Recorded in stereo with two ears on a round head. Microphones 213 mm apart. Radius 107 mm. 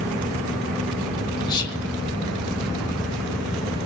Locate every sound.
1.5 s whispering: 20° left (ahead or behind), 0.5 m